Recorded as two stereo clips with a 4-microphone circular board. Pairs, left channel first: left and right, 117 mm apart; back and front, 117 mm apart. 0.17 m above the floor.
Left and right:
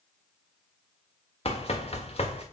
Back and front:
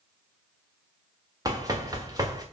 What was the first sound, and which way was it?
Running footsteps, 60° left.